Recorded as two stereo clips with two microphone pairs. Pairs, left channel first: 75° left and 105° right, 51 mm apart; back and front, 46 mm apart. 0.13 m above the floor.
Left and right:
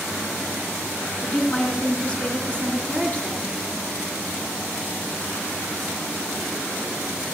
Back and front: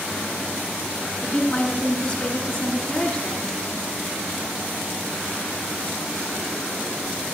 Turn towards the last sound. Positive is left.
turn(degrees=120)